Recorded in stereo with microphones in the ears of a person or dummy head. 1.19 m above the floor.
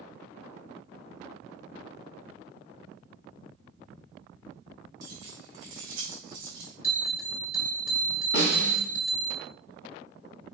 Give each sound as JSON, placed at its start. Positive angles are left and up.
{"t": 5.0, "sound": "keys jangling", "side_deg": -20, "distance_m": 3.0}
{"t": 6.8, "sound": "a bell", "side_deg": 45, "distance_m": 1.3}
{"t": 8.3, "sound": "a snare drum", "side_deg": 55, "distance_m": 1.7}